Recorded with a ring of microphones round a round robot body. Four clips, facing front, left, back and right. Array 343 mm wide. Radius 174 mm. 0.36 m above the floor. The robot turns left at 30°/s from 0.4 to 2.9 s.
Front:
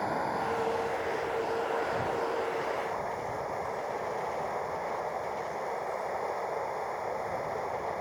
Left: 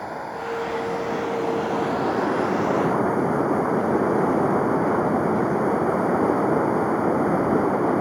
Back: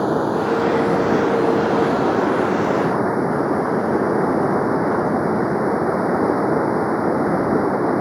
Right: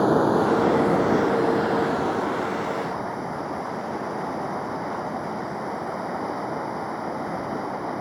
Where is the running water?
135° right; by 8.0 s 150° left.